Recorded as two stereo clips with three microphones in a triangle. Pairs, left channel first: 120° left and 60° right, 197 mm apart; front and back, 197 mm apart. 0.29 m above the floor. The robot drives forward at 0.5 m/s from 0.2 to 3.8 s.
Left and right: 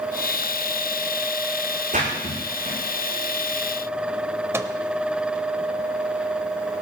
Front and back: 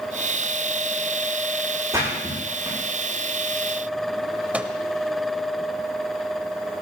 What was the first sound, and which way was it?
A splash, 105° right.